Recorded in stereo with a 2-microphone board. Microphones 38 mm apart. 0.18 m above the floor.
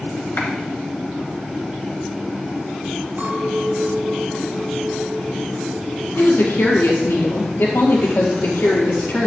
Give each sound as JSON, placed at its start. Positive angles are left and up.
{"t": 0.4, "sound": "a clap", "side_deg": 55, "distance_m": 2.0}
{"t": 3.2, "sound": "a clink", "side_deg": -50, "distance_m": 2.5}
{"t": 6.2, "sound": "a woman speaking", "side_deg": 70, "distance_m": 3.5}